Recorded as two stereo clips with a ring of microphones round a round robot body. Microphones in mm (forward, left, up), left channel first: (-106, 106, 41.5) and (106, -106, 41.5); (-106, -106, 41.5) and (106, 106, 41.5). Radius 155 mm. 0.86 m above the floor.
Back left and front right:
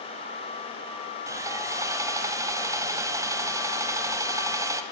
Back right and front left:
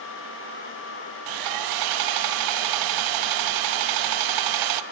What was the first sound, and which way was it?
Sawing, 35° left.